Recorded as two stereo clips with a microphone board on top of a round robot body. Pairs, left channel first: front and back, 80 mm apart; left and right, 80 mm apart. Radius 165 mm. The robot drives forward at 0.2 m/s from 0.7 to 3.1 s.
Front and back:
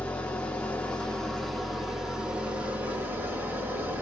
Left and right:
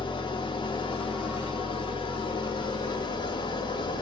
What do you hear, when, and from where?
0.0 s an engine running: 75° left, 0.8 m; by 4.0 s 110° left, 0.8 m